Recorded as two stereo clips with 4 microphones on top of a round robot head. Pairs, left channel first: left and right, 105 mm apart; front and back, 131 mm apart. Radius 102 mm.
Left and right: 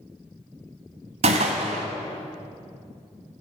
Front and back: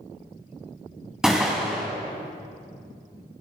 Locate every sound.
1.2 s a gunshot: 95° right, 1.3 m